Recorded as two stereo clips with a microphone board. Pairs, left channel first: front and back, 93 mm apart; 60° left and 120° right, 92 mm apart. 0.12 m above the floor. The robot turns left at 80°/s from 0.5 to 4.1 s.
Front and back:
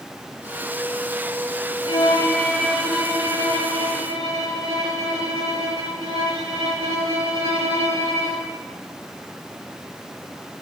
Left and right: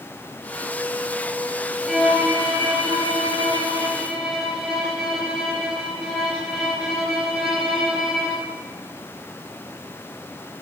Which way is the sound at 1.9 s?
25° right.